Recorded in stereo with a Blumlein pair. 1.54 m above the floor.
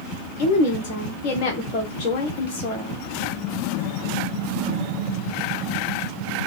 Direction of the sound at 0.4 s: 40° left.